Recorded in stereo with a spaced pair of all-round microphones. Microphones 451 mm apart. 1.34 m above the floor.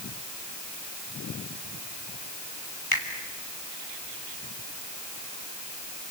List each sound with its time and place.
2.9 s a finger snap: 50° left (ahead or behind), 3 m